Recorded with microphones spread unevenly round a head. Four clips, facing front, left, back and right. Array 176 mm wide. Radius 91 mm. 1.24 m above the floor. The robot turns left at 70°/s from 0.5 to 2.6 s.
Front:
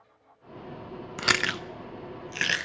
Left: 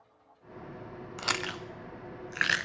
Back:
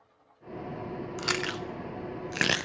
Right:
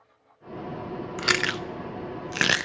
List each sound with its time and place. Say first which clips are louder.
1.2 s chewing: right 7 dB, front 5 dB; 35° right, 0.6 m; by 2.7 s 135° right, 0.6 m